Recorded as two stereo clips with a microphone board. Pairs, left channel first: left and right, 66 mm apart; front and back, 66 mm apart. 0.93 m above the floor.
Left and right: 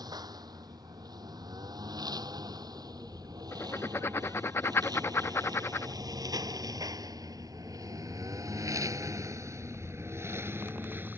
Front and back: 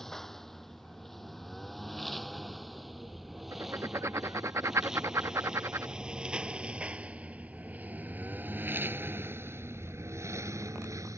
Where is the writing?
140° left.